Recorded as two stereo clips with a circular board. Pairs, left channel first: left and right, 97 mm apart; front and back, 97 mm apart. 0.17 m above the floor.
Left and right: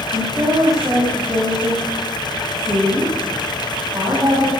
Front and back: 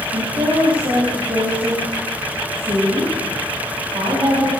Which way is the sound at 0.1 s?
145° right.